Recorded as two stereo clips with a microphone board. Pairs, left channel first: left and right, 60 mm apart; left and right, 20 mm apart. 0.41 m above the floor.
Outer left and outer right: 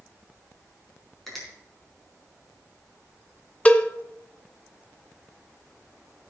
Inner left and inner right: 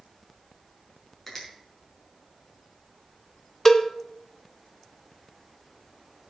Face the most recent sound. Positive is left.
turn(degrees=25)  # may be behind; listen again after turning